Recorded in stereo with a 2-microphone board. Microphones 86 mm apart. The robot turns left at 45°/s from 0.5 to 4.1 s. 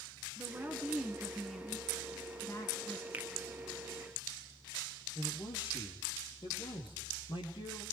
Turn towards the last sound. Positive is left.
turn(degrees=70)  # may be behind; listen again after turning